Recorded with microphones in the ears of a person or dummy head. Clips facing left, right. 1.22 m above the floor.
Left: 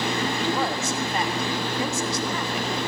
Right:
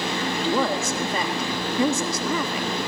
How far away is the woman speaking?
About 1.9 m.